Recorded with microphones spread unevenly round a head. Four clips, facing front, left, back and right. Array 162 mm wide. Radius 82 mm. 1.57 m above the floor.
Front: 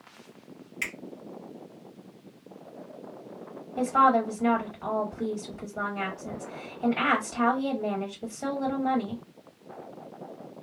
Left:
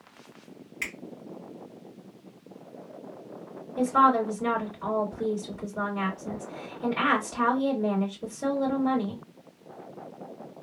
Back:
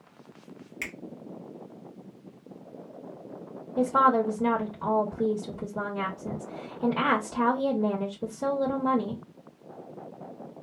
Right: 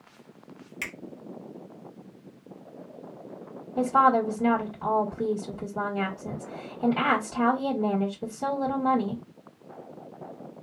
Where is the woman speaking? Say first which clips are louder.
Right 1 dB, even; 140° right, 2 m.